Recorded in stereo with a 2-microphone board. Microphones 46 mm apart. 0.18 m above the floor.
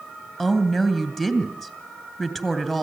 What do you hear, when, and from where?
0.4 s a woman speaking: 5° left (ahead or behind), 2.5 m